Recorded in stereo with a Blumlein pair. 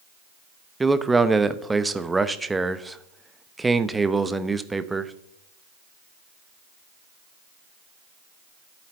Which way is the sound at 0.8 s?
10° right.